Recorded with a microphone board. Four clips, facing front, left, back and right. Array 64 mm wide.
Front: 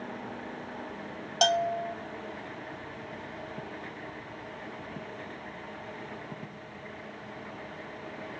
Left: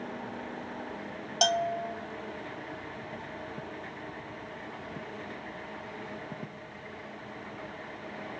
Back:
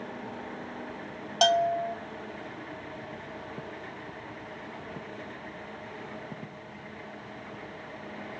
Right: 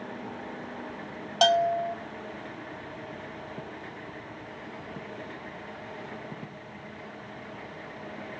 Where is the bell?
105° right, 1.0 m.